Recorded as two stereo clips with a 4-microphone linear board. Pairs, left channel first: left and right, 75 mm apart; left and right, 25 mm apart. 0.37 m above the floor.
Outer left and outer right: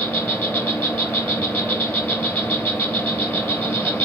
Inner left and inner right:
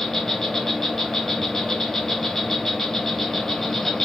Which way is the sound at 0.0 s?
25° left (ahead or behind).